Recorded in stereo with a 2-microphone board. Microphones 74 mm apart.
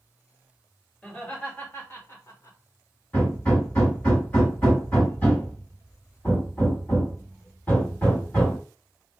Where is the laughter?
15° left (ahead or behind), 1.6 m; by 2.6 s 45° left (ahead or behind), 1.0 m.